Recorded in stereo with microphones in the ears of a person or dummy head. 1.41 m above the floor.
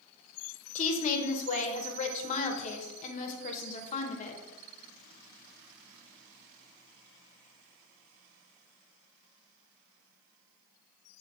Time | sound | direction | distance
0.8 | a woman speaking | 40° left (ahead or behind) | 0.6 m